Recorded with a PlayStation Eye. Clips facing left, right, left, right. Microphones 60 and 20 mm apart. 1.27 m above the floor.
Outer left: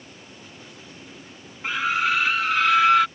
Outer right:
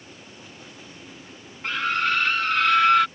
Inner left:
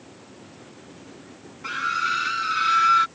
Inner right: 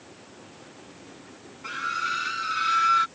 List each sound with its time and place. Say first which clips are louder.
1.6 s a scream: outer left 1 dB, inner left 4 dB; 10° left (ahead or behind); by 3.1 s 5° left (ahead or behind)